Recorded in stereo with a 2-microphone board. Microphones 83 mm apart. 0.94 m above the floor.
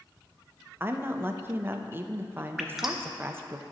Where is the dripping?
5° right (ahead or behind), 0.7 m.